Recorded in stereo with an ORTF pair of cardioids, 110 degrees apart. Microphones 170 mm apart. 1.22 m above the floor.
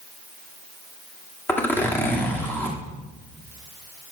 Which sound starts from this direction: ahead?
A zipper, at 1.5 s.